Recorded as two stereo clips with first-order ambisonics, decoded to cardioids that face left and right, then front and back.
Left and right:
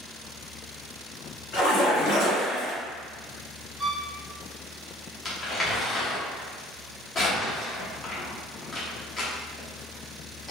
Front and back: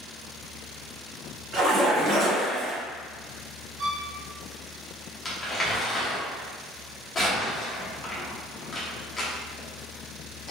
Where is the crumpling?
40° left, 0.7 m.